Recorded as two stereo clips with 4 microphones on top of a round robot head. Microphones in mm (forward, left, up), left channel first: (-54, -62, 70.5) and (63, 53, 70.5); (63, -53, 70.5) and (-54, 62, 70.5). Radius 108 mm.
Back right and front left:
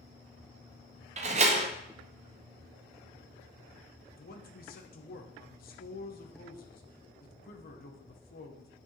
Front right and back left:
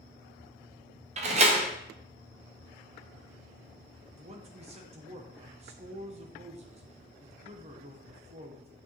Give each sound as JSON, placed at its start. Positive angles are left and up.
{"t": 1.2, "sound": "a door slam", "azimuth_deg": 90, "distance_m": 0.7}
{"t": 4.1, "sound": "a man speaking", "azimuth_deg": -170, "distance_m": 1.1}